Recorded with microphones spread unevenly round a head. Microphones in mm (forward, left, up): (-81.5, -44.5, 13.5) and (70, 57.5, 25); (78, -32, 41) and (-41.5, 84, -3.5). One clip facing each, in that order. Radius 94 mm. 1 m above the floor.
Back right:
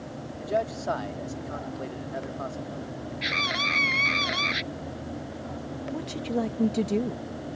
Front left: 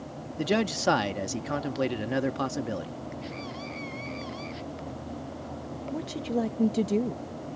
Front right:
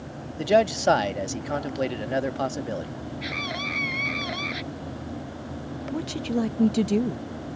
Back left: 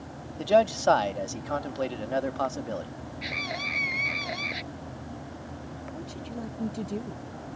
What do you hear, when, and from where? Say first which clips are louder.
0.4 s a man speaking: front left 2 dB, front right 1 dB; 25° left
3.2 s a scream: back right 3 dB, even; 135° right
5.9 s a woman speaking: even, front right 13 dB; 55° right